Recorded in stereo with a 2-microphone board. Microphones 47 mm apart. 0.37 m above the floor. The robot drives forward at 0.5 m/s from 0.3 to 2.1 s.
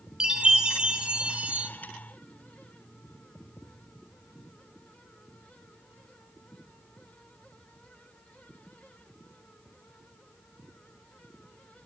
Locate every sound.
0.2 s a chime: 15° right (ahead or behind), 1.1 m; by 1.7 s 25° right (ahead or behind), 0.7 m